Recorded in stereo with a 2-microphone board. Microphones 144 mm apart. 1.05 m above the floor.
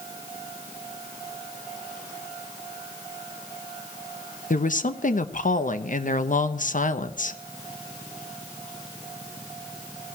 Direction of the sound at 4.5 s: 60° left (ahead or behind).